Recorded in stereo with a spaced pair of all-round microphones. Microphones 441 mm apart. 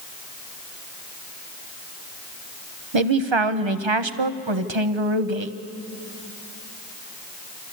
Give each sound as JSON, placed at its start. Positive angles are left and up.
{"t": 2.9, "sound": "a man speaking", "side_deg": -85, "distance_m": 0.9}